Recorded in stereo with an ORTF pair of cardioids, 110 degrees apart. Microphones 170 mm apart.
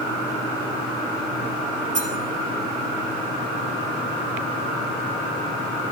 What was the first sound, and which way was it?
Cutlery clinking, 50° right.